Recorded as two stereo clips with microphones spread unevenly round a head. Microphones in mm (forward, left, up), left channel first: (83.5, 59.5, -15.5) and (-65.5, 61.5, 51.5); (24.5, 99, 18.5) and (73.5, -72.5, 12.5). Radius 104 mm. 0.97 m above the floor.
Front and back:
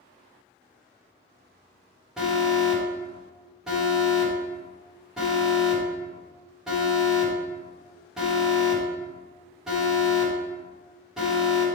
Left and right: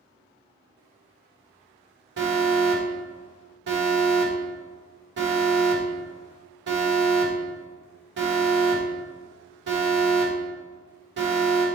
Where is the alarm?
80° right, 1.7 m.